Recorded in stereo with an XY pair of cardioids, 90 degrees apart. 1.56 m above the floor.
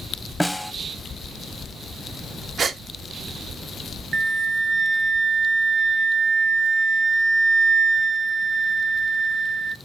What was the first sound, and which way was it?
A snare drum, 5° right.